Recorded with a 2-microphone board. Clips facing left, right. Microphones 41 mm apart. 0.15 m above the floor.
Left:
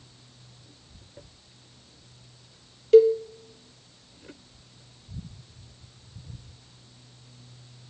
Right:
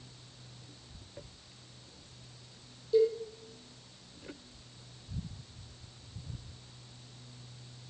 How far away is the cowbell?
About 0.8 m.